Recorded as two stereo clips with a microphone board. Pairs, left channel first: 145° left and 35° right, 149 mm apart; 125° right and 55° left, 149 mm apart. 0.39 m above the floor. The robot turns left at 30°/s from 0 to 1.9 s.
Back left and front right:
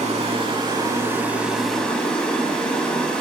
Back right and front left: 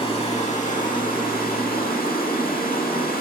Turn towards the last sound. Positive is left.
turn(degrees=-130)